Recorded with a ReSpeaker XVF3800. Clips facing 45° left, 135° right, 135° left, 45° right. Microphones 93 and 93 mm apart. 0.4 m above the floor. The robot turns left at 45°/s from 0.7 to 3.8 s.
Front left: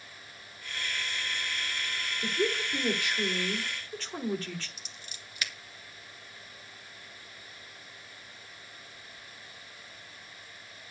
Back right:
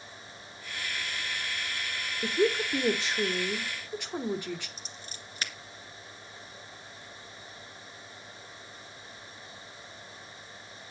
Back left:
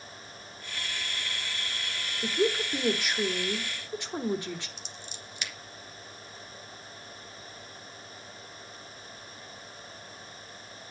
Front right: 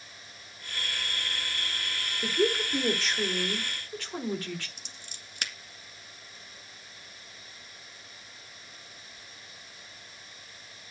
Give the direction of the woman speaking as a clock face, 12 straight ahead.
4 o'clock.